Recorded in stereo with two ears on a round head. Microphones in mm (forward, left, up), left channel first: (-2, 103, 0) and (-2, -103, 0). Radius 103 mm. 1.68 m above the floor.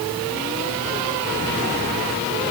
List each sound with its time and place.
Only background noise.